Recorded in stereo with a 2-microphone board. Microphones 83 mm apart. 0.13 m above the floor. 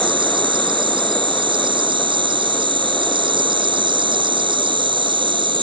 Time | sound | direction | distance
0.0 | an insect | 75° right (ahead or behind) | ?